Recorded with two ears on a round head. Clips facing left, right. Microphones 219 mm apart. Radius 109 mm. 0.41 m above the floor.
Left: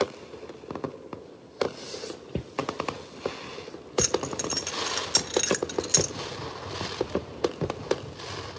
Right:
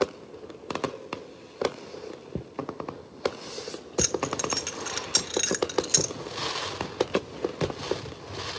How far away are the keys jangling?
About 0.6 m.